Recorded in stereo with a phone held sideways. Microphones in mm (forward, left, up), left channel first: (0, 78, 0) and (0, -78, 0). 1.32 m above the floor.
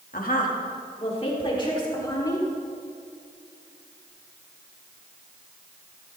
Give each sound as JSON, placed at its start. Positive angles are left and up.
{"t": 0.1, "sound": "a woman speaking", "side_deg": 70, "distance_m": 2.0}